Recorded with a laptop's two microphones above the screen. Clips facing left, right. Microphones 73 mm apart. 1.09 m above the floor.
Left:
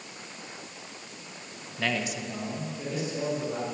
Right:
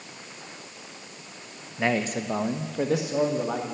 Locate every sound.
1.8 s a man speaking: 20° right (ahead or behind), 0.7 m; by 3.6 s 80° right, 2.5 m